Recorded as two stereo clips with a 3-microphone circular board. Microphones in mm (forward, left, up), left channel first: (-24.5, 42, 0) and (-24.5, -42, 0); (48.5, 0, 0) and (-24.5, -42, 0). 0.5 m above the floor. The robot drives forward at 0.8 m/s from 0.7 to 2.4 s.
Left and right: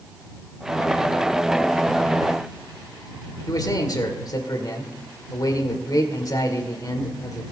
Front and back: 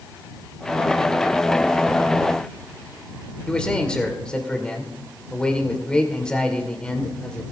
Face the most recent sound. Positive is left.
turn(degrees=105)